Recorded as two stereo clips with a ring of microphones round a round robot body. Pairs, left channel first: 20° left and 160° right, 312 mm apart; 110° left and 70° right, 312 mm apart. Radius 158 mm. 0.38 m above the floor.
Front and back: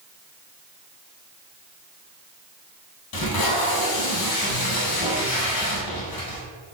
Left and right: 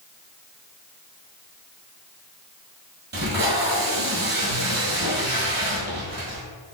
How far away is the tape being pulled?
About 1.7 m.